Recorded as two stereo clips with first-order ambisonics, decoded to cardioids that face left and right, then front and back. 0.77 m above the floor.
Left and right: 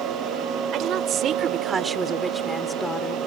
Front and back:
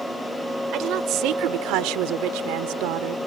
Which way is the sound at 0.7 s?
135° right.